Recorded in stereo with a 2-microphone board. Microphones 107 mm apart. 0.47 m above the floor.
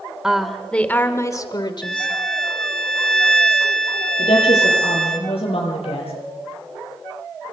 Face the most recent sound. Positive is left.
turn(degrees=75)  # may be behind; listen again after turning